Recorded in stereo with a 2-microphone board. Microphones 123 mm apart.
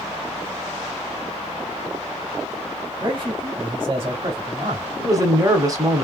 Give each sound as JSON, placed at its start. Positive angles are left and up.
{"t": 3.0, "sound": "a man speaking", "side_deg": -45, "distance_m": 2.0}
{"t": 5.0, "sound": "a woman speaking", "side_deg": -30, "distance_m": 1.1}